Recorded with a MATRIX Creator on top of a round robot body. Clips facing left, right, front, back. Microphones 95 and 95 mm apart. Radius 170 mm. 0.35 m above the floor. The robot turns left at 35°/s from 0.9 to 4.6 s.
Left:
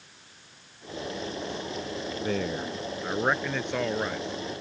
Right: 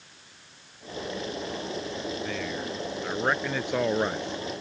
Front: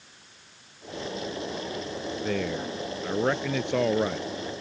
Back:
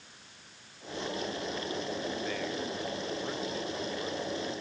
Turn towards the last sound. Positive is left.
turn(degrees=-40)